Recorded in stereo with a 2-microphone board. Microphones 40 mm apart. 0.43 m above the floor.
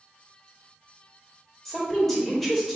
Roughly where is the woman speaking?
Centre.